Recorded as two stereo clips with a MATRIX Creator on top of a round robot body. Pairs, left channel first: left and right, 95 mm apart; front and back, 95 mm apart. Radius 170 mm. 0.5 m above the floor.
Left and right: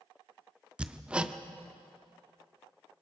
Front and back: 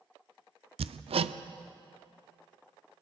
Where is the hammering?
170° right, 0.6 m.